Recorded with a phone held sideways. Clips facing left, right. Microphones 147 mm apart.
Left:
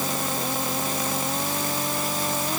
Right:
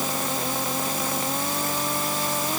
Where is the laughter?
I don't hear laughter.